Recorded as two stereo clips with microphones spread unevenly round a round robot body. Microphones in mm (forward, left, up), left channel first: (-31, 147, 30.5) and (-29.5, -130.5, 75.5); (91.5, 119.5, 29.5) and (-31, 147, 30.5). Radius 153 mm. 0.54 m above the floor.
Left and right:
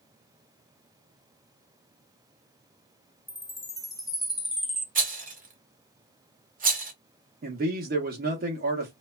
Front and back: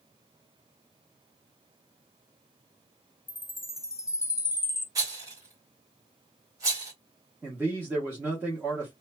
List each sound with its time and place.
3.3 s a chime: 20° left, 0.7 m
5.0 s a rattle: 145° right, 1.2 m
7.4 s a man speaking: 135° right, 0.7 m